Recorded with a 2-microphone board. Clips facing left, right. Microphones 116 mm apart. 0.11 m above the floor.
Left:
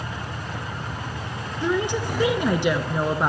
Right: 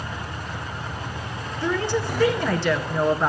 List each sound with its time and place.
1.6 s a woman speaking: 15° left (ahead or behind), 1.2 m